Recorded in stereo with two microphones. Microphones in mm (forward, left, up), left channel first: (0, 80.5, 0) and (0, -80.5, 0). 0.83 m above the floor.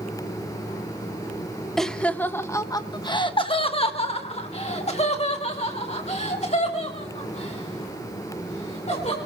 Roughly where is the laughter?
Centre.